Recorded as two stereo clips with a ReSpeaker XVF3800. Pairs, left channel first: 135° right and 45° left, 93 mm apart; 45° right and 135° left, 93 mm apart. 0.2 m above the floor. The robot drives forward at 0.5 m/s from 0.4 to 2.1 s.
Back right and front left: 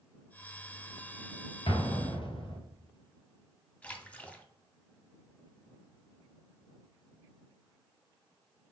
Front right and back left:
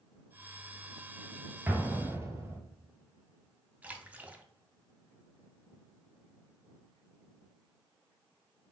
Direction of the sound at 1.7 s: 155° right.